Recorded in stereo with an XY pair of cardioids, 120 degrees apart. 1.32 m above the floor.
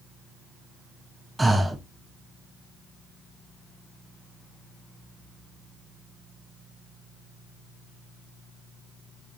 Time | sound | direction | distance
1.4 | breathing | 10° right | 0.6 m